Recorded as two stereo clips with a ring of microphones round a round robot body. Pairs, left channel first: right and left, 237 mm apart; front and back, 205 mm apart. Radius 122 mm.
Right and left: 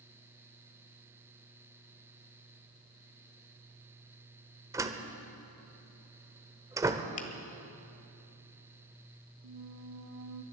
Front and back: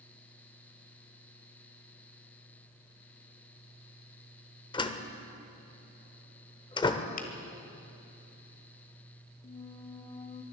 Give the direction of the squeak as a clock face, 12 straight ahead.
10 o'clock.